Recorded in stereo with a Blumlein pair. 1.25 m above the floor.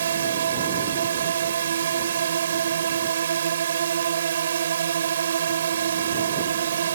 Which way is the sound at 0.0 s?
65° right.